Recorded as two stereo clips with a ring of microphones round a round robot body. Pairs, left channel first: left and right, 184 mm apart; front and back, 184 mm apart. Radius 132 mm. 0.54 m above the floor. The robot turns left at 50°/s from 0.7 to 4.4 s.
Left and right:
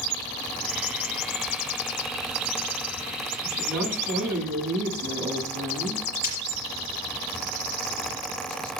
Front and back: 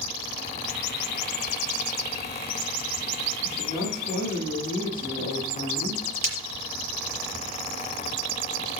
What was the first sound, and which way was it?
A woman speaking, 60° right.